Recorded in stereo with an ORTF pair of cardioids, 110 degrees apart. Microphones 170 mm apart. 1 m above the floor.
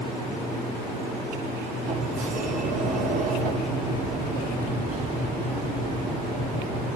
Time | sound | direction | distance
1.9 | a sliding door | 50° right | 1.3 m